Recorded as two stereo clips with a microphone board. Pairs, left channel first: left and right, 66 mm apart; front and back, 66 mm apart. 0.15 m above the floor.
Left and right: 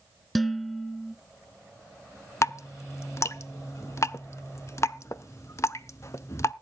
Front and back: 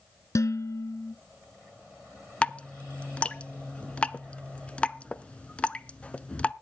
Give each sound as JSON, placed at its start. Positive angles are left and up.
{"t": 0.3, "sound": "dishes clattering", "azimuth_deg": 0, "distance_m": 1.0}
{"t": 2.4, "sound": "dripping", "azimuth_deg": 65, "distance_m": 0.5}